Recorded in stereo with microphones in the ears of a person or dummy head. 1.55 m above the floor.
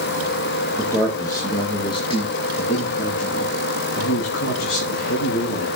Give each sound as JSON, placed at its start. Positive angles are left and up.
{"t": 0.8, "sound": "a man speaking", "side_deg": 10, "distance_m": 2.5}